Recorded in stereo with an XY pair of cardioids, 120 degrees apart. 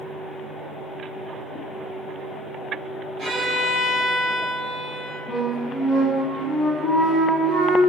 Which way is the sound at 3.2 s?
60° right.